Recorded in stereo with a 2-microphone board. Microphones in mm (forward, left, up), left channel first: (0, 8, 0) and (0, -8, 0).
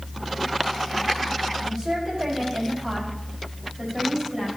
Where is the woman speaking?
40° right (ahead or behind), 4.5 m; by 4.5 s 25° right (ahead or behind), 5.5 m.